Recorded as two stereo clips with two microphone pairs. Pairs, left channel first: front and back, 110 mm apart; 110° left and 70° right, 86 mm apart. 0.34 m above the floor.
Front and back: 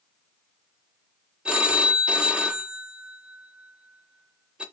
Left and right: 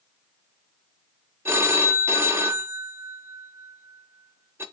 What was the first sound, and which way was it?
A phone ringing, 105° right.